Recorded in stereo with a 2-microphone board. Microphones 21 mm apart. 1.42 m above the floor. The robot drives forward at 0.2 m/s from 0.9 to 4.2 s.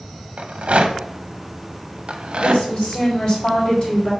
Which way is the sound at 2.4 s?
55° left (ahead or behind).